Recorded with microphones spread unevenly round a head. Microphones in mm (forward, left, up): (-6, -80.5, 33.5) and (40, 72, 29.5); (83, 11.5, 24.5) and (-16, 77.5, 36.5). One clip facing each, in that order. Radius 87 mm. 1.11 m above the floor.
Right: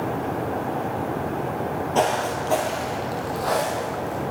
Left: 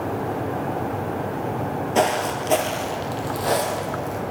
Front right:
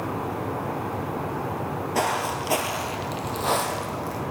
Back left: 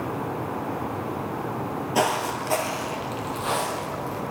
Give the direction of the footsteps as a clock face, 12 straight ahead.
8 o'clock.